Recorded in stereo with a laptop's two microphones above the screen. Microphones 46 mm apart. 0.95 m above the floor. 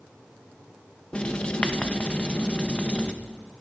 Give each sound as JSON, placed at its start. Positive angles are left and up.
{"t": 1.1, "sound": "writing", "side_deg": 25, "distance_m": 1.1}